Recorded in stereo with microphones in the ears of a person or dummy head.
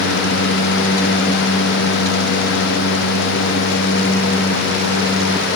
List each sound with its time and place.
Only background noise.